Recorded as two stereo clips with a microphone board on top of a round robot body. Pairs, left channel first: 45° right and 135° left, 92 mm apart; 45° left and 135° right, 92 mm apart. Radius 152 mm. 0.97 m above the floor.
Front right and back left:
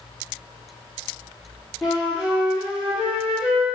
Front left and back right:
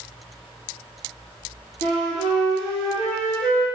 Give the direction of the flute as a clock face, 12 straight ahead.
10 o'clock.